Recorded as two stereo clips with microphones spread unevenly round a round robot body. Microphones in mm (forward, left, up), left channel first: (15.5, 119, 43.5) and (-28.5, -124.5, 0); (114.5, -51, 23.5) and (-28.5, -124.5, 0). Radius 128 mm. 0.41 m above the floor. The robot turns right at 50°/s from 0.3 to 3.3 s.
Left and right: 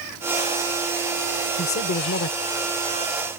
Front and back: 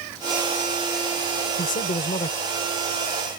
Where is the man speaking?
30° left; by 2.4 s 70° left.